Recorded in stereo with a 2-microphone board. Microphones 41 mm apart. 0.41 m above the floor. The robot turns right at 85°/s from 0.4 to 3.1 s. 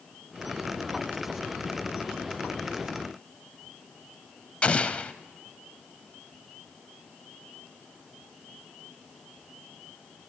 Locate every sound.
4.6 s an explosion: 35° left (ahead or behind), 0.5 m